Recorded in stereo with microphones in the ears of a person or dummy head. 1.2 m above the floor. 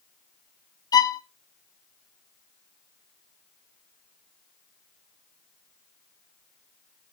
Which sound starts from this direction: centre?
A violin, at 0.9 s.